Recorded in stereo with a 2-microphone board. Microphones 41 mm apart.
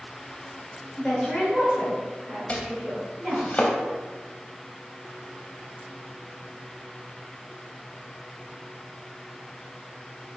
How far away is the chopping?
About 0.5 m.